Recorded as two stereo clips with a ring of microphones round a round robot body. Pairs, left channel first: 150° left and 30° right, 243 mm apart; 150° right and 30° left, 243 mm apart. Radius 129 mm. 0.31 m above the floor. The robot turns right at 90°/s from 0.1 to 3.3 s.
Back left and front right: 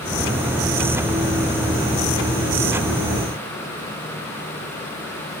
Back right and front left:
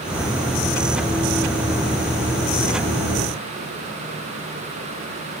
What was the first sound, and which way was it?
Only background noise.